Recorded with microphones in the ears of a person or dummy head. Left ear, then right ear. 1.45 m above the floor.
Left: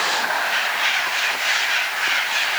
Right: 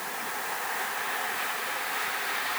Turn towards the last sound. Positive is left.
No sound to turn to.